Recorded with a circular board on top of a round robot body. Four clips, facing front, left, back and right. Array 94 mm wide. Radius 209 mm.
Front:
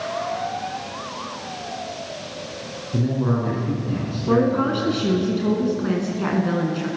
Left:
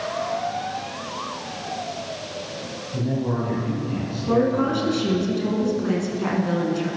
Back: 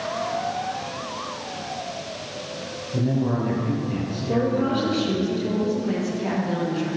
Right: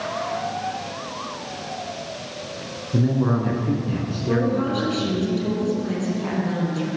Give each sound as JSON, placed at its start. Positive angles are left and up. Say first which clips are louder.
{"t": 2.9, "sound": "a man speaking", "louder": "right 4 dB, front 1 dB", "azimuth_deg": -65, "distance_m": 7.5}
{"t": 4.3, "sound": "a woman speaking", "louder": "left 2 dB, front 4 dB", "azimuth_deg": 15, "distance_m": 6.5}